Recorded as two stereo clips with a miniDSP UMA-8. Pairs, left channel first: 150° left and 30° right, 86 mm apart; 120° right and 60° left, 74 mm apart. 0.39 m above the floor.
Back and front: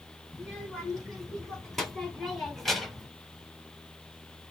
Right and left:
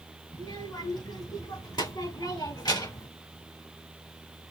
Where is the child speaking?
125° right, 4 m; by 3.1 s 120° right, 1.1 m.